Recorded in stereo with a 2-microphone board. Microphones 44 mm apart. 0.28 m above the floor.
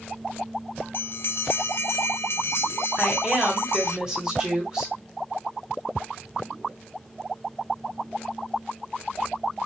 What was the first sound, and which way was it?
A bell, 60° left (ahead or behind).